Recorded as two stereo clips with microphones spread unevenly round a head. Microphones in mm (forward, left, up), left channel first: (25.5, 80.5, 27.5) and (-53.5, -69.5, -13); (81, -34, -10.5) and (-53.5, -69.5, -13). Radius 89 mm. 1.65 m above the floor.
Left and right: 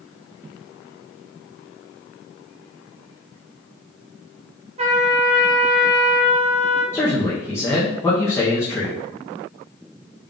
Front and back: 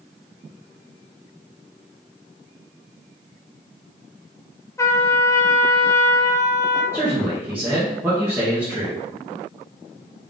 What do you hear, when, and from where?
4.8 s a trumpet: 55° right, 0.6 m
6.9 s a man speaking: 120° left, 0.7 m